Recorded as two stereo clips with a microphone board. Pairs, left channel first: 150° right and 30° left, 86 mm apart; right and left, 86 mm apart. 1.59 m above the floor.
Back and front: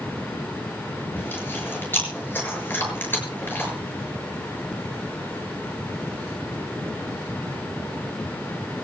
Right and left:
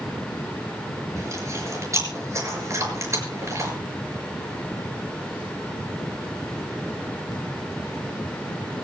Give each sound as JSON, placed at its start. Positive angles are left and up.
{"t": 1.1, "sound": "chewing", "azimuth_deg": 145, "distance_m": 6.5}